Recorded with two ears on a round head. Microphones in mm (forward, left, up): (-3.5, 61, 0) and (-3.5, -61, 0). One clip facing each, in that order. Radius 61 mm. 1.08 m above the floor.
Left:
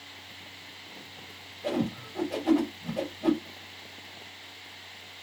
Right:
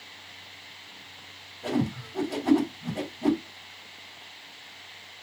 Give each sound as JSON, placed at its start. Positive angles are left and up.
{"t": 1.6, "sound": "a whoosh", "side_deg": -55, "distance_m": 4.0}